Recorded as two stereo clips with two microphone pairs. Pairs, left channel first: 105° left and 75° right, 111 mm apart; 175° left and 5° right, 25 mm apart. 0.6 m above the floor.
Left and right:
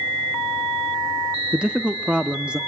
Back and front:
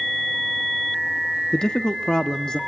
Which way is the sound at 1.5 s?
155° right.